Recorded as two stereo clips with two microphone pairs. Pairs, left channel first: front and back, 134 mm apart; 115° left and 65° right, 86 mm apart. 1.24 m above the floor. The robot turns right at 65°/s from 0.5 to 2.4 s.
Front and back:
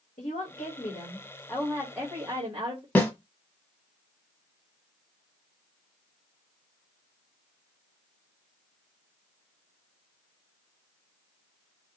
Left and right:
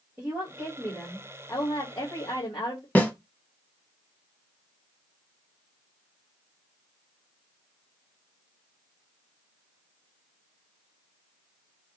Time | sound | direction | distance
0.2 | a woman speaking | 5° left | 1.7 m
3.0 | a snare drum | 65° left | 1.2 m